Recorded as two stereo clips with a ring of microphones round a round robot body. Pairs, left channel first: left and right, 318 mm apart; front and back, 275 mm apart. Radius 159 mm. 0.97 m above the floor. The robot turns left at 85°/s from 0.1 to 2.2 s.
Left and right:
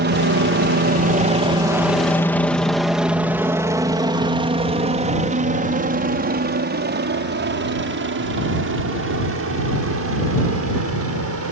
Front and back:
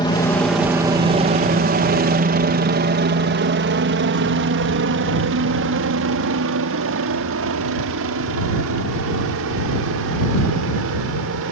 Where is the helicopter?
65° right; by 11.5 s 135° right.